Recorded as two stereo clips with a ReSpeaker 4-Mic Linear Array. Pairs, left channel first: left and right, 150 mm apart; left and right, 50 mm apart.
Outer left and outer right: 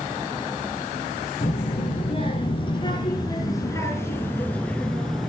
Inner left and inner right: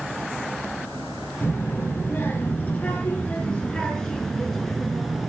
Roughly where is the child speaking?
Left.